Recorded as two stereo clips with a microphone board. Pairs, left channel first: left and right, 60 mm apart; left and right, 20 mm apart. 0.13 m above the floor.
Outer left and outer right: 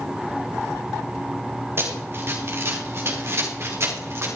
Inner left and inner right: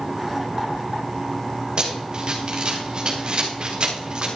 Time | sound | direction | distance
1.8 | running footsteps | 40° right (ahead or behind) | 3.5 m